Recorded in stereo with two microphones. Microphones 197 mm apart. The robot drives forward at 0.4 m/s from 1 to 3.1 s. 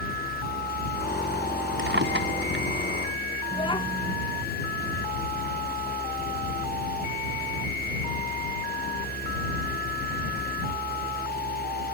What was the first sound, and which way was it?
A drawer, 80° right.